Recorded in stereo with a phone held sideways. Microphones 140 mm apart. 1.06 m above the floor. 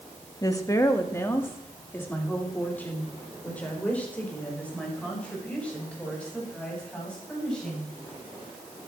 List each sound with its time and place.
0.4 s a woman speaking: 25° left (ahead or behind), 1.3 m; by 7.9 s 5° left (ahead or behind), 7.5 m